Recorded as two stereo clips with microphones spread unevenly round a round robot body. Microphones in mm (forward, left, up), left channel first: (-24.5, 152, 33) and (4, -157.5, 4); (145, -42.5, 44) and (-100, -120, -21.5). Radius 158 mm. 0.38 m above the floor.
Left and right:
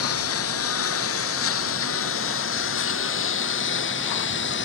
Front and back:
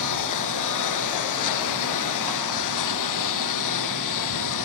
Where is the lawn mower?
50° left; by 4.6 s 40° left.